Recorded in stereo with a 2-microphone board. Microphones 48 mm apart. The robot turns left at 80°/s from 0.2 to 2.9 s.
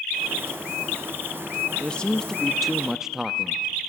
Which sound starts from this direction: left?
A man speaking, at 1.8 s.